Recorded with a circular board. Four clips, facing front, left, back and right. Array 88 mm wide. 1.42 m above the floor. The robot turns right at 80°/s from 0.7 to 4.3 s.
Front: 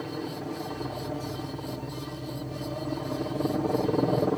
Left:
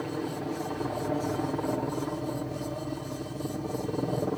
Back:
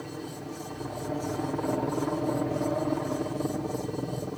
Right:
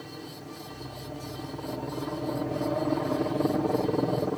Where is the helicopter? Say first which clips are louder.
Left 9 dB, front 4 dB; 65° left; by 4.4 s 5° right.